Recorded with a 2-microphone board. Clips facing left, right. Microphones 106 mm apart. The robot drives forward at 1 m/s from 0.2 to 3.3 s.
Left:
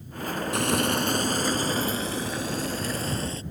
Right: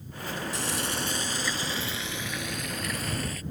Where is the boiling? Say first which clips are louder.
Left 11 dB; 65° left (ahead or behind); by 3.4 s 30° left (ahead or behind).